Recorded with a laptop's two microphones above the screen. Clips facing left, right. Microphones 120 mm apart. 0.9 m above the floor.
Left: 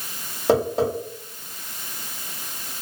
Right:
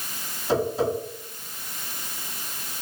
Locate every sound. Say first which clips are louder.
0.5 s tapping: left 4 dB; 70° left (ahead or behind), 1.3 m